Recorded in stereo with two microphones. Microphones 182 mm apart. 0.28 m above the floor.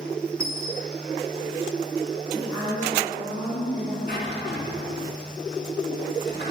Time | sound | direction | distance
0.4 | a dropped coin | 45° right (ahead or behind) | 3.5 m
2.3 | a woman speaking | 15° left (ahead or behind) | 3 m
4.1 | a drawer | 70° left (ahead or behind) | 1.8 m